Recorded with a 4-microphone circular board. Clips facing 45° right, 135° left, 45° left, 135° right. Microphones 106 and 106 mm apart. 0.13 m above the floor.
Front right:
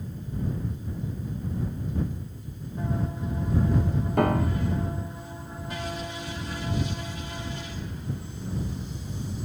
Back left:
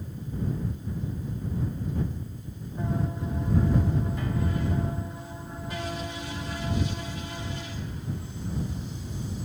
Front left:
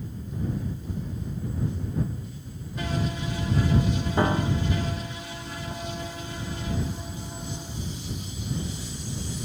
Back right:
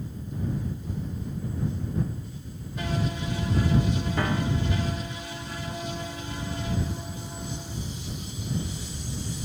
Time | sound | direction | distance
4.2 | a piano | 20° right | ?